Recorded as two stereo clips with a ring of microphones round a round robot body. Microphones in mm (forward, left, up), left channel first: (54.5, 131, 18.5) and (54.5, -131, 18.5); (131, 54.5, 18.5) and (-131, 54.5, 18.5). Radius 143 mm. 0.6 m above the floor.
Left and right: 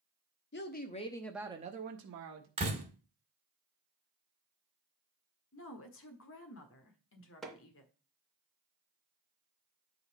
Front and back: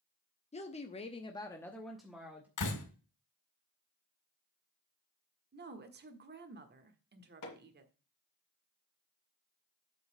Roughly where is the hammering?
Ahead.